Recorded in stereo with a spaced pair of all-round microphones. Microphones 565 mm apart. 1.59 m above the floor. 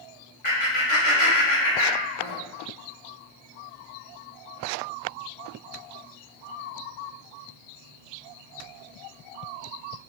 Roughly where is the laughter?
Left.